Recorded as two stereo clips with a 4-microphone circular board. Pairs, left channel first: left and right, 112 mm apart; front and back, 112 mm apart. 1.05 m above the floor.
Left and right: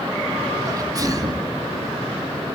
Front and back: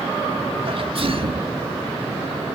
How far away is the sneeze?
About 1.9 m.